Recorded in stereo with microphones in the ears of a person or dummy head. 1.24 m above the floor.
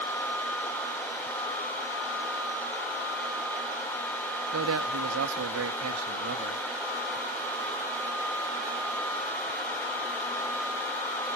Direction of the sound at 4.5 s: 80° right.